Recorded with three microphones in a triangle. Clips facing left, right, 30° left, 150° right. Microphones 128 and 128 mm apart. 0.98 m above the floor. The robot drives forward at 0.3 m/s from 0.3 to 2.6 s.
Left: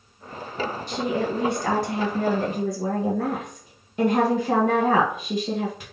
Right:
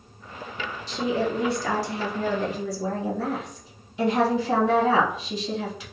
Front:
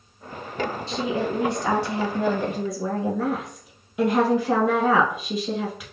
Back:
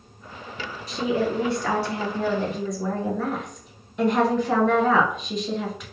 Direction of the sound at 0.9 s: 85° left.